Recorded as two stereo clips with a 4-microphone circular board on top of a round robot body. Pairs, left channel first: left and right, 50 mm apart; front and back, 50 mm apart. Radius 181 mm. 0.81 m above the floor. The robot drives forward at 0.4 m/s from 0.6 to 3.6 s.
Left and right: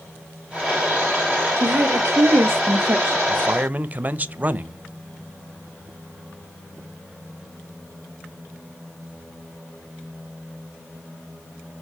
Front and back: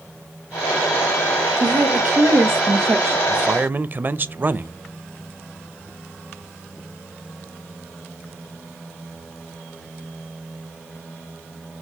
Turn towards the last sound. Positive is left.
turn(degrees=-140)